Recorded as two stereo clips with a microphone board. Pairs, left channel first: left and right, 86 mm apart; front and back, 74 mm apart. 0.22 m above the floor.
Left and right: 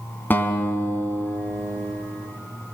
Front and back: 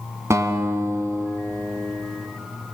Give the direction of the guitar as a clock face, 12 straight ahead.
7 o'clock.